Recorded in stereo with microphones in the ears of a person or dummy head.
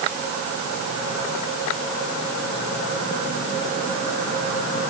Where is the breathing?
No breathing in this recording.